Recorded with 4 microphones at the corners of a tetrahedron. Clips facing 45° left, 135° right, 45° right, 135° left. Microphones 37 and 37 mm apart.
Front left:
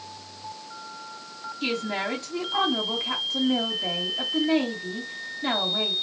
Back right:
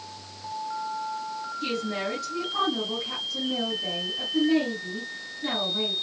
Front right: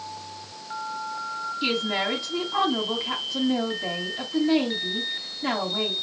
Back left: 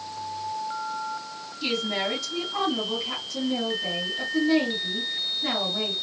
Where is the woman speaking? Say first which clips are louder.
Front left 3 dB, front right 1 dB; 15° left, 2.5 m.